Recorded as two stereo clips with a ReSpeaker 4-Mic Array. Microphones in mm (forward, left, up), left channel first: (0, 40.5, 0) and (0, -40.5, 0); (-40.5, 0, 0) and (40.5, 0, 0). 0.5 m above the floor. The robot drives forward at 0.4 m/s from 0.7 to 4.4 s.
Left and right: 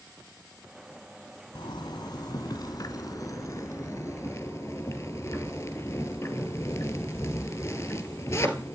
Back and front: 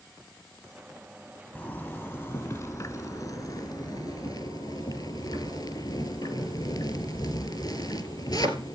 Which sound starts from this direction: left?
A zipper, at 1.6 s.